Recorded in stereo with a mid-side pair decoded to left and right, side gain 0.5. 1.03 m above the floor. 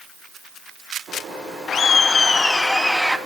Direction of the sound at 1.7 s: 45° left.